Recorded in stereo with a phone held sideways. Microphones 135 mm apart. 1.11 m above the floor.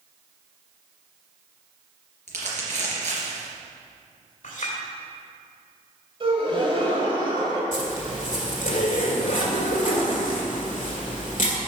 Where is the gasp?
45° right (ahead or behind), 1.9 m.